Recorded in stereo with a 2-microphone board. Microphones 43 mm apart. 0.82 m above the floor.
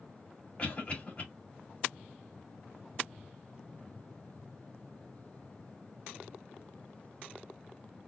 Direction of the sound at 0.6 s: 35° left (ahead or behind).